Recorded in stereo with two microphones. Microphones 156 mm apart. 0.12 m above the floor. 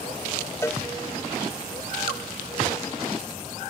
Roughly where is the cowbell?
Centre.